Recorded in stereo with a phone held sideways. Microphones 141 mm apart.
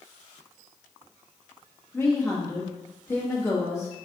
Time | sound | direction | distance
1.9 | a woman speaking | 20° left (ahead or behind) | 1.5 m